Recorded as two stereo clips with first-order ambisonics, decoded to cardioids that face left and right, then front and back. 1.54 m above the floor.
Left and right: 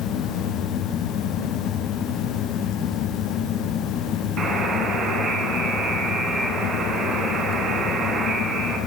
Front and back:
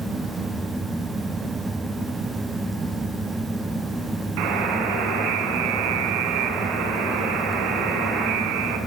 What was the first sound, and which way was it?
A buzzer, 155° right.